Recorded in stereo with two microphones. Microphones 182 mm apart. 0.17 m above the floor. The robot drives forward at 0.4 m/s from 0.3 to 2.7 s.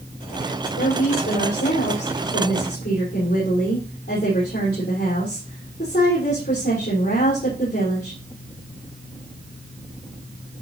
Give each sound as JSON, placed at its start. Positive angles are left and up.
{"t": 0.8, "sound": "a woman speaking", "side_deg": 70, "distance_m": 5.5}